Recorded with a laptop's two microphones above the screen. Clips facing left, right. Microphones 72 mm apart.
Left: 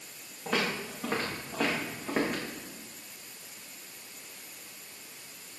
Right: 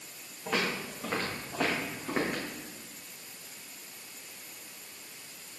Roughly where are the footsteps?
Centre.